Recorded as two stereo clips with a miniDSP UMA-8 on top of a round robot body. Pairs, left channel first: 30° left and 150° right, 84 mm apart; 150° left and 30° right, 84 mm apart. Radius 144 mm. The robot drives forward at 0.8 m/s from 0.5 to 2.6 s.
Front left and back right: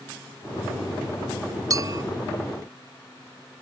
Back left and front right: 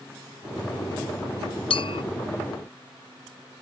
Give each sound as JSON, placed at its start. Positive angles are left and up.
{"t": 1.7, "sound": "a clink", "azimuth_deg": 160}